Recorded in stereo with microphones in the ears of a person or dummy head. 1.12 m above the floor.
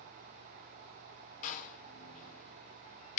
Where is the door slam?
55° left (ahead or behind), 1.2 m.